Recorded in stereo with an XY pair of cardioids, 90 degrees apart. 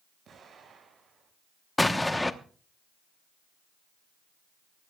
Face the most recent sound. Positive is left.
turn(degrees=15)